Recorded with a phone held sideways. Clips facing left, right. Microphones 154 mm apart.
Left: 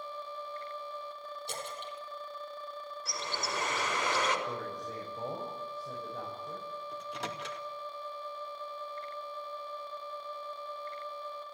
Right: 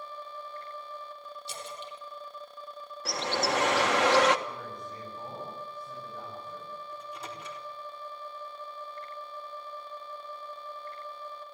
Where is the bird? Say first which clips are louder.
Right 10 dB; 80° right, 1.5 m.